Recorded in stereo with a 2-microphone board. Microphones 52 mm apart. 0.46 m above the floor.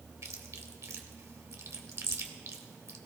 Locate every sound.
0.2 s chewing: 65° right (ahead or behind), 1.2 m